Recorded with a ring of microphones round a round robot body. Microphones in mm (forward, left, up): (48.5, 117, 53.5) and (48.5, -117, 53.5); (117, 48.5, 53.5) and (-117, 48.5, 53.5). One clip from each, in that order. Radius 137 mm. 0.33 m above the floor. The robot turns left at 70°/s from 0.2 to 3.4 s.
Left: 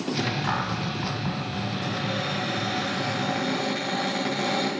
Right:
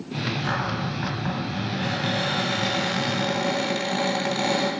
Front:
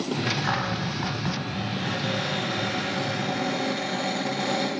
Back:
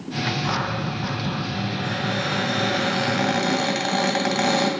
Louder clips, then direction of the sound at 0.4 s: Right 1 dB, back 2 dB; 40° left.